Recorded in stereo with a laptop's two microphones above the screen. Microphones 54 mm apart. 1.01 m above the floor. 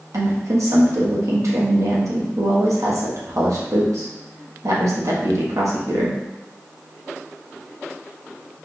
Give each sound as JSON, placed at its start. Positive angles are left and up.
{"t": 0.1, "sound": "a woman speaking", "side_deg": -70, "distance_m": 1.1}